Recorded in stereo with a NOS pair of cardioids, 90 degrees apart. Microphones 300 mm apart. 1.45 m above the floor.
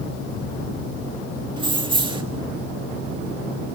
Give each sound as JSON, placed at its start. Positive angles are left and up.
{"t": 1.6, "sound": "keys jangling", "azimuth_deg": -15, "distance_m": 1.9}